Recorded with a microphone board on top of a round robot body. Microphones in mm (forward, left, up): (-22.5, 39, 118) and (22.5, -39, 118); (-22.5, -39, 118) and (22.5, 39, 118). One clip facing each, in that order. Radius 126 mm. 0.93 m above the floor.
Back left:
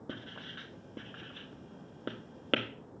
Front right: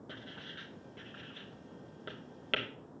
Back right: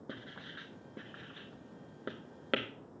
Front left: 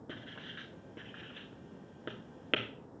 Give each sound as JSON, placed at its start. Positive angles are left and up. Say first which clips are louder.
{"t": 0.1, "sound": "writing", "louder": "back left 5 dB, back right 1 dB", "azimuth_deg": 165, "distance_m": 2.0}